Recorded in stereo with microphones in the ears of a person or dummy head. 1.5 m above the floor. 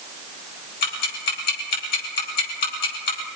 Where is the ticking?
55° left (ahead or behind), 9 m.